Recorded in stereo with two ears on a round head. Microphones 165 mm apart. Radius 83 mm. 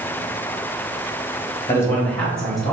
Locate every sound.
1.7 s a man speaking: 15° left (ahead or behind), 1.3 m; by 2.7 s centre (ahead or behind), 1.7 m